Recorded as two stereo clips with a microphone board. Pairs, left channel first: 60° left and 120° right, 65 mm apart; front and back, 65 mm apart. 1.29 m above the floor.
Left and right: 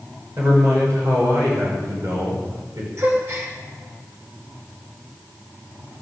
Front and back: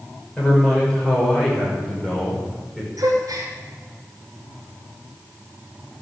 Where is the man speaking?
75° right, 6 m; by 2.9 s 90° right, 5.5 m.